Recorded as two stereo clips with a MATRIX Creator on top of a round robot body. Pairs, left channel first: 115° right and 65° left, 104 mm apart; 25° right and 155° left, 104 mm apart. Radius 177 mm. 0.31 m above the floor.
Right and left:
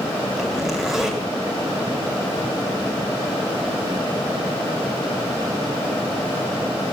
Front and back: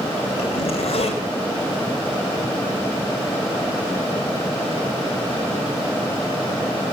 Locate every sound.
0.4 s a zipper: 20° right, 2 m